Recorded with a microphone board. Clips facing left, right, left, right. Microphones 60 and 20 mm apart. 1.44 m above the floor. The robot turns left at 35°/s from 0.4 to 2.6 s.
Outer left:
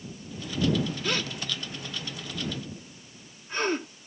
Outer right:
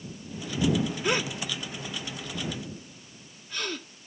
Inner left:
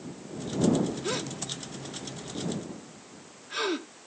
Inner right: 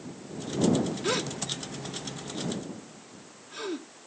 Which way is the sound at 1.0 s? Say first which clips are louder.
Outer right 3 dB, inner right 3 dB; 20° right (ahead or behind).